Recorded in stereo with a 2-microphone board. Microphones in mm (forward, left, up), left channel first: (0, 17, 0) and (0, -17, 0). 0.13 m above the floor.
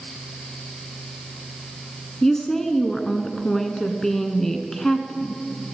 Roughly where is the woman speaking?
Centre.